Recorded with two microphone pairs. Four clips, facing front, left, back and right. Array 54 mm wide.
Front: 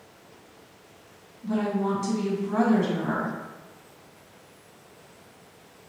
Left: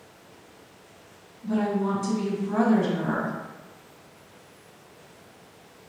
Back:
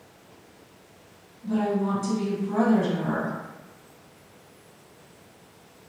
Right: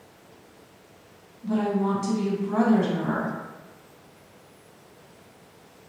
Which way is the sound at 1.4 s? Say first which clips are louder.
Right 1 dB, back 1 dB; 60° right.